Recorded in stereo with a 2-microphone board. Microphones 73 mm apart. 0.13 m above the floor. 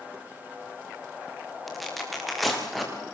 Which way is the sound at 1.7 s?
Centre (ahead or behind).